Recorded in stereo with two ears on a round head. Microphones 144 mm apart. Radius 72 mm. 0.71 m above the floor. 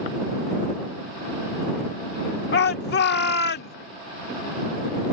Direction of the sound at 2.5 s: 65° left (ahead or behind).